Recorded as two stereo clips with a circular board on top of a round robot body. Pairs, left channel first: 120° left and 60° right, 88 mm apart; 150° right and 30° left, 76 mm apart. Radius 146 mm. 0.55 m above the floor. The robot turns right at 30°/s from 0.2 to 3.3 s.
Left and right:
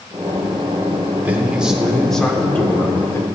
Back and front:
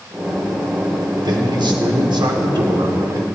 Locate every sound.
1.2 s a man speaking: 10° left, 1.8 m; by 3.2 s 70° left, 1.8 m